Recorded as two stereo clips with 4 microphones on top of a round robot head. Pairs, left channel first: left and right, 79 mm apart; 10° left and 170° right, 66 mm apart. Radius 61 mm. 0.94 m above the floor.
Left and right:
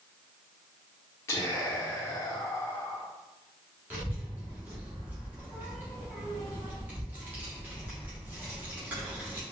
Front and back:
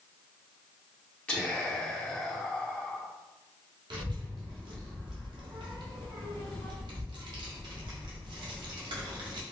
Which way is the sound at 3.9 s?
160° right.